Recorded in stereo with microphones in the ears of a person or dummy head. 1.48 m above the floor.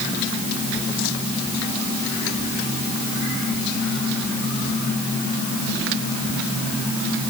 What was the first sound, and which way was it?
Only background noise.